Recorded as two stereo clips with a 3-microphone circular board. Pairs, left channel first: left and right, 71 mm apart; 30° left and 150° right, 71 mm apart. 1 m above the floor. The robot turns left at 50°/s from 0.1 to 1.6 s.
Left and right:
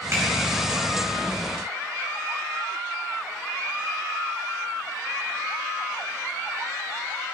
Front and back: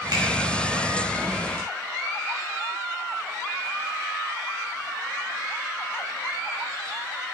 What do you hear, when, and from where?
0.1 s a finger snap: 140° right, 4.5 m; by 0.2 s 150° right, 4.5 m